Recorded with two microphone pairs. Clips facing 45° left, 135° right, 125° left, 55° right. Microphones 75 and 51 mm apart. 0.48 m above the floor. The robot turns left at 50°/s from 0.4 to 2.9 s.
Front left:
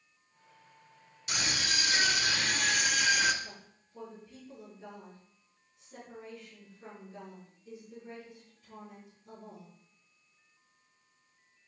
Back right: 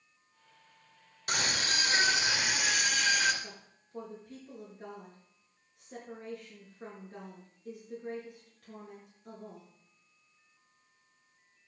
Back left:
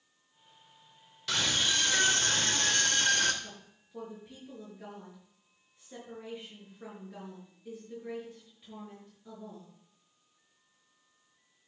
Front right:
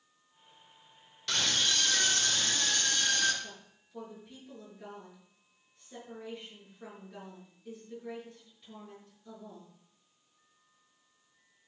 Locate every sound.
1.3 s a scream: 150° right, 2 m; by 3.3 s 130° left, 2 m
3.4 s a woman speaking: 155° right, 7.5 m